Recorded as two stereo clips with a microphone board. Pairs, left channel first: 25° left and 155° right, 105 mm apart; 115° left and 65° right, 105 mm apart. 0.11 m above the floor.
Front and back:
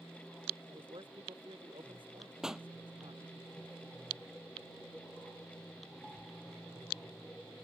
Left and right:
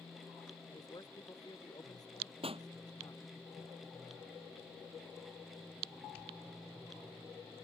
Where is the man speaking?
165° left.